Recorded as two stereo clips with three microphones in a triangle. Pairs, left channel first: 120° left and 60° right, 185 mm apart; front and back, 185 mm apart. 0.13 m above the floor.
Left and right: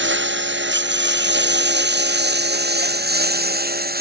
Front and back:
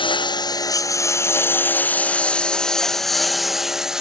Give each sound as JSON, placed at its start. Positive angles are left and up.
{"t": 0.0, "sound": "a lawn mower", "azimuth_deg": -65}